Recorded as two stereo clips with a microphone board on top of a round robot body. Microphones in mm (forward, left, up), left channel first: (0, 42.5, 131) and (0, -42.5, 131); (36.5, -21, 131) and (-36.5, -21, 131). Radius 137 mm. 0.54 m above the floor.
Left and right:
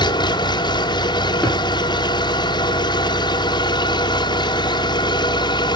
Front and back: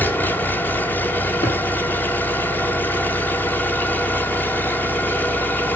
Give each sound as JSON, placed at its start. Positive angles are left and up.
{"t": 0.0, "sound": "an engine running", "azimuth_deg": 65, "distance_m": 1.3}
{"t": 1.4, "sound": "a thud", "azimuth_deg": 25, "distance_m": 9.0}